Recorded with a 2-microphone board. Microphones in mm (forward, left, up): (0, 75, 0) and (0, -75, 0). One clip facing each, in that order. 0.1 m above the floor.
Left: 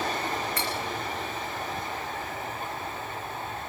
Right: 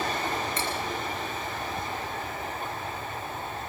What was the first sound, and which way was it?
Cutlery clinking, 20° right (ahead or behind).